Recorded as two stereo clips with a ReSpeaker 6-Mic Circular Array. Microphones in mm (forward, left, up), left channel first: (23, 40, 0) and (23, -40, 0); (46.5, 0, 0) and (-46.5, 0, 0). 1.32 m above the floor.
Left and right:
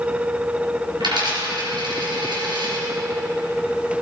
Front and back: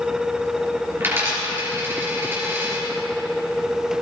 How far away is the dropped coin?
About 4 m.